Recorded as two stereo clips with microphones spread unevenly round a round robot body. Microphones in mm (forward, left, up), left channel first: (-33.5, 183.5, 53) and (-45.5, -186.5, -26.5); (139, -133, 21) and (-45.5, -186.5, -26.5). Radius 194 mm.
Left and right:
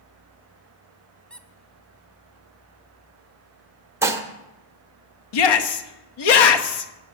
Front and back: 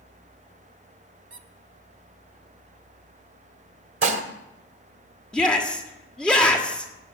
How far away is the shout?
About 1.3 m.